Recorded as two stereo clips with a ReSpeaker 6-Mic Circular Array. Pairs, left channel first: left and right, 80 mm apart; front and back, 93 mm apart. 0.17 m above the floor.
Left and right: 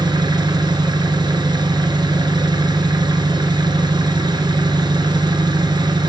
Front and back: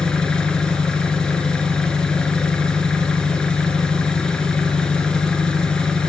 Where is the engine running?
80° right, 1.4 m.